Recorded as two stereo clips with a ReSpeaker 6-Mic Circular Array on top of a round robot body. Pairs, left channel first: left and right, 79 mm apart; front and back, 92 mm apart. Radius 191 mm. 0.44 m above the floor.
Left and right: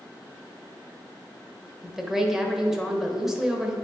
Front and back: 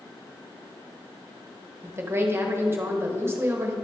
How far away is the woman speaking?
About 1.3 m.